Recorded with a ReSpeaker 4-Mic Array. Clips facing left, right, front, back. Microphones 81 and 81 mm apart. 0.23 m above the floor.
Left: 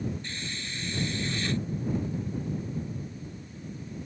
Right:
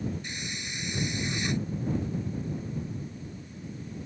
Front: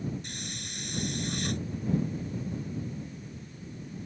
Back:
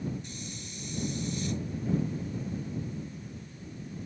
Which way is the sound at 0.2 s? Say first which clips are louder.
Even, front 1 dB; 15° right.